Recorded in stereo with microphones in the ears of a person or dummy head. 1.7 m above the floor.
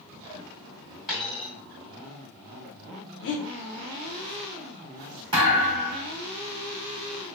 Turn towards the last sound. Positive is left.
turn(degrees=-30)  # may be behind; listen again after turning